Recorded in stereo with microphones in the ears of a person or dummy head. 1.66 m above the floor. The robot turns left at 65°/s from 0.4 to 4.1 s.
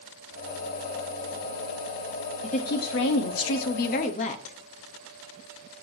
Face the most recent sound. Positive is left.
turn(degrees=40)